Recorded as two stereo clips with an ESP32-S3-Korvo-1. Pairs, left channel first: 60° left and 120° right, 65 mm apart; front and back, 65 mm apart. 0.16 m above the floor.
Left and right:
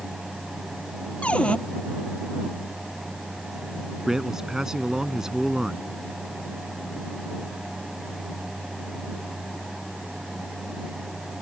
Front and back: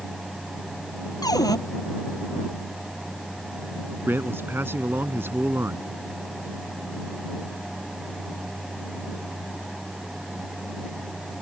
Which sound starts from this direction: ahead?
A cupboard door, at 1.2 s.